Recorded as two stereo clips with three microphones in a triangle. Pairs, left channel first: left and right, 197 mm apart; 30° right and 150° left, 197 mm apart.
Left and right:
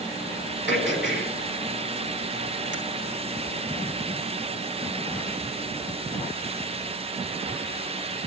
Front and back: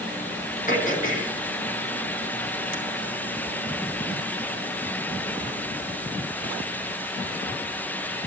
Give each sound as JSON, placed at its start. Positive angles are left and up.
{"t": 0.7, "sound": "throat clearing", "azimuth_deg": -75, "distance_m": 3.0}